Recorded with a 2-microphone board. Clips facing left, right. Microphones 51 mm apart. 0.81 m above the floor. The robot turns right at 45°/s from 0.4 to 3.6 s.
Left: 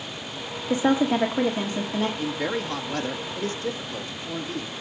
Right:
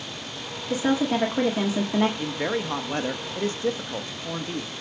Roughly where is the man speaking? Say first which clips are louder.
Even; behind.